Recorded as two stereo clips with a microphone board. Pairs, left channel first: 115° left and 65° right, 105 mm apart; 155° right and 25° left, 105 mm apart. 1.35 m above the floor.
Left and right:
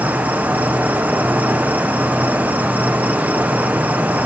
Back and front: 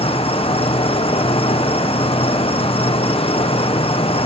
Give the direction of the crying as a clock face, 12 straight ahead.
No crying in this recording.